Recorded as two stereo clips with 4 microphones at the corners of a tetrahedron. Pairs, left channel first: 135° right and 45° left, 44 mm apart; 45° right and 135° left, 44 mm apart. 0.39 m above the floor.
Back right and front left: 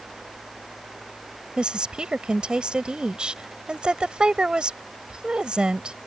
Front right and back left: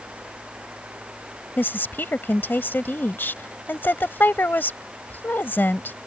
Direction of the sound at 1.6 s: 20° right.